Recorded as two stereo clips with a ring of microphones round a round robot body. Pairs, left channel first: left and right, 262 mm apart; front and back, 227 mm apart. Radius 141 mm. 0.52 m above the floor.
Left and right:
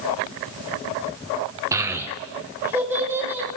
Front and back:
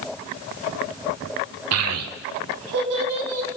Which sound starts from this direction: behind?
A child speaking, at 1.7 s.